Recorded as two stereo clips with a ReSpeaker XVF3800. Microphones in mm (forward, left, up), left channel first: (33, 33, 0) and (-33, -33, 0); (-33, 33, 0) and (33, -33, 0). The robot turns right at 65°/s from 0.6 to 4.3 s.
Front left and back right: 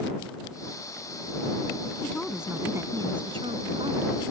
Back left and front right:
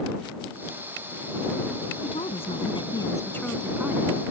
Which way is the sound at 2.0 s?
115° left.